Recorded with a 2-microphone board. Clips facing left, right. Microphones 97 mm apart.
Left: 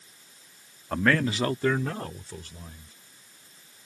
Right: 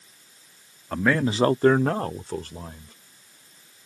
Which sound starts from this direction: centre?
A man speaking, at 0.9 s.